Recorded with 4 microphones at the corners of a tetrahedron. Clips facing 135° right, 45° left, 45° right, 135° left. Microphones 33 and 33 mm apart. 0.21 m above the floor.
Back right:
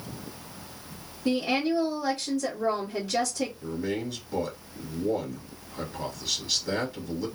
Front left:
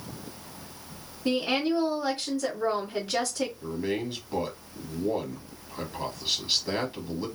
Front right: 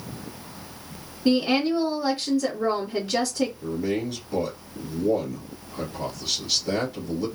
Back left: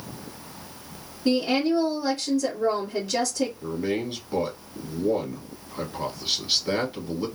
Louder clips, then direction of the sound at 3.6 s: Front left 1 dB, front right 1 dB; 90° left.